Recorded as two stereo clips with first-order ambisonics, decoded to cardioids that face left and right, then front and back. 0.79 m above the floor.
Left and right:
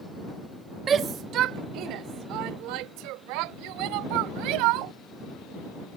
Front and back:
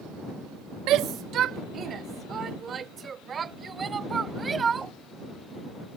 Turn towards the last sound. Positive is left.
turn(degrees=-110)